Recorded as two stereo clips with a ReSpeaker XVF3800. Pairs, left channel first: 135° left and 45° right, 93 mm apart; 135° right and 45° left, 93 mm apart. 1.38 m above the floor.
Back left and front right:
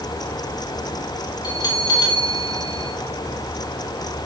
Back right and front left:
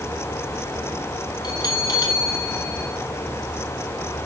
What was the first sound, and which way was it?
A bell, straight behind.